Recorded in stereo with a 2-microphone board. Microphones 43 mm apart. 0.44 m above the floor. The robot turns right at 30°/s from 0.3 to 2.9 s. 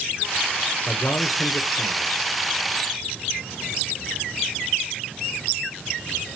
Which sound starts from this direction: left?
A man speaking, at 0.9 s.